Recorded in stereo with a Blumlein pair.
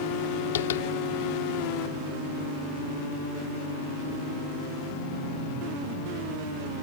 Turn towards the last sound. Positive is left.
turn(degrees=60)